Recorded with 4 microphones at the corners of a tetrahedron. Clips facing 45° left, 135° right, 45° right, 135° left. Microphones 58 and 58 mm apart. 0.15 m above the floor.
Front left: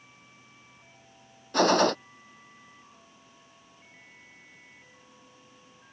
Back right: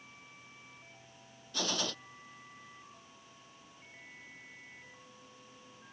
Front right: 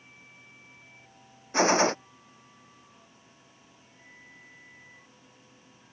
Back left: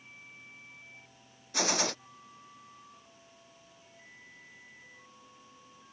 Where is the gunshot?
10° left.